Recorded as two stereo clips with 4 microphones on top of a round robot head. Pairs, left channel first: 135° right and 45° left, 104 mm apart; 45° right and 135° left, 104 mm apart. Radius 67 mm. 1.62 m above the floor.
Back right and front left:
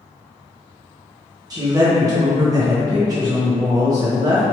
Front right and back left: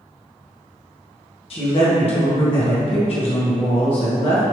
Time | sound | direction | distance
1.5 | a woman speaking | 10° right | 1.4 m